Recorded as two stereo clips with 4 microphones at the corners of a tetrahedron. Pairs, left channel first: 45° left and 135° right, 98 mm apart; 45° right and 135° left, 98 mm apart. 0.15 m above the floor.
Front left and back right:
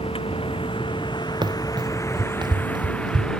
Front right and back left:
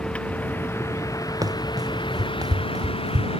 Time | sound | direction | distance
0.0 | a vehicle | 35° left | ?
1.4 | running footsteps | 175° right | ?